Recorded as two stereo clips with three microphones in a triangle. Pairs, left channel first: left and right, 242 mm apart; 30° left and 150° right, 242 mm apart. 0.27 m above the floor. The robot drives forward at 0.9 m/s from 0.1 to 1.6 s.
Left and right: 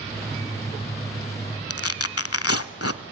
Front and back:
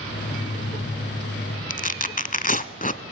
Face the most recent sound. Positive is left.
turn(degrees=80)